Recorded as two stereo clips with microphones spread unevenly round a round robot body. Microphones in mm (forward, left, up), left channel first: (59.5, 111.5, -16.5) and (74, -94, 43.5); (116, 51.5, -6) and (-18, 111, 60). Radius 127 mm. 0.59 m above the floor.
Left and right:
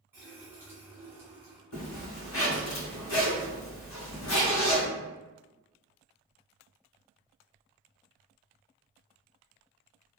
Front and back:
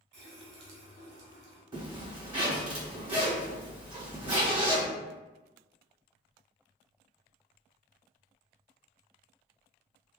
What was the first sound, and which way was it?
A running tap, 175° right.